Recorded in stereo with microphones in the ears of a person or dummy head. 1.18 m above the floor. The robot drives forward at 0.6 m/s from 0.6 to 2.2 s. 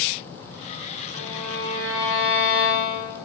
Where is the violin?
20° left (ahead or behind), 3 m; by 3.2 s 15° left (ahead or behind), 3.5 m.